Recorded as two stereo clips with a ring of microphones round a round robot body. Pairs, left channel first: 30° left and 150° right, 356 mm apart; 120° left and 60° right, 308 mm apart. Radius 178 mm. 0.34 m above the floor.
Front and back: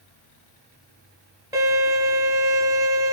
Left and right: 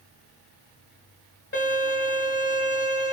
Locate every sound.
1.5 s a violin: 140° left, 1.1 m